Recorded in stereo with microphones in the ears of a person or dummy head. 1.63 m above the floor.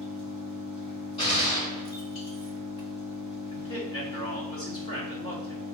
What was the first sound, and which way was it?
An engine running, 30° left (ahead or behind).